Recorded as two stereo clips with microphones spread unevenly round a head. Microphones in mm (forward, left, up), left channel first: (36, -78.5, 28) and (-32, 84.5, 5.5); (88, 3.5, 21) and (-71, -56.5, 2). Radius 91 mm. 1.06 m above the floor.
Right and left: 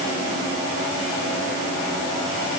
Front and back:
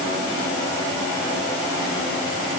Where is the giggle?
No giggle in this recording.